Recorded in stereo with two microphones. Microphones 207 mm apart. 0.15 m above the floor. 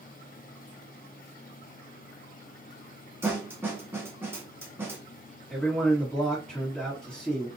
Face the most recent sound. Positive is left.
turn(degrees=5)  # may be behind; listen again after turning